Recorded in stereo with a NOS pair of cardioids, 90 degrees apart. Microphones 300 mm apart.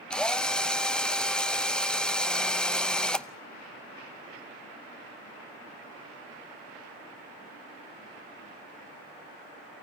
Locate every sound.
0.1 s a drill: 5° left, 0.6 m